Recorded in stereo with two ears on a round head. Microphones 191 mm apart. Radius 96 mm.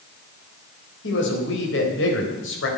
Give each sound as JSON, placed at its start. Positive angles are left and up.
{"t": 1.0, "sound": "a man speaking", "side_deg": 60, "distance_m": 4.0}